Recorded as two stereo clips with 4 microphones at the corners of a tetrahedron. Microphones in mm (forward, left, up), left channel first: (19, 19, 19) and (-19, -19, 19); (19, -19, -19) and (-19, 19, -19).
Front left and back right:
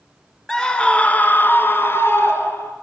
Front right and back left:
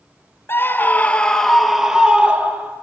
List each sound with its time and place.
0.5 s a scream: 30° right, 1.5 m; by 2.7 s 80° left, 2 m